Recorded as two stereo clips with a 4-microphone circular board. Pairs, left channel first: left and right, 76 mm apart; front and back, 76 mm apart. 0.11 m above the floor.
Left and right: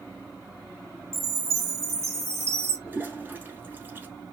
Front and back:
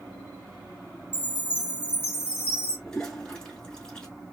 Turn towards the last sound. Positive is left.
turn(degrees=-70)